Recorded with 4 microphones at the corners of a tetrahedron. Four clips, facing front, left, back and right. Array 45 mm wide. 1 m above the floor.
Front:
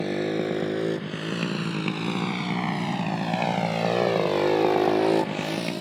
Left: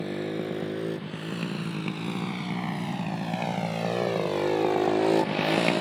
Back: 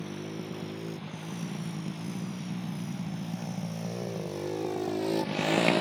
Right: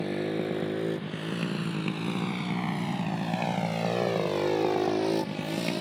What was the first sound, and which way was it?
A motorcycle, 5° right.